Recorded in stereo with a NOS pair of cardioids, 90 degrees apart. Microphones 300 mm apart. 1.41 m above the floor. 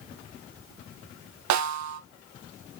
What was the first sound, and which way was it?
A snare drum, 65° right.